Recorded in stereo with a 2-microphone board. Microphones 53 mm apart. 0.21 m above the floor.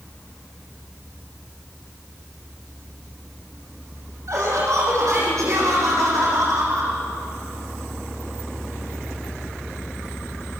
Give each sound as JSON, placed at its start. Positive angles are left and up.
{"t": 4.3, "sound": "laughter", "side_deg": -70, "distance_m": 9.5}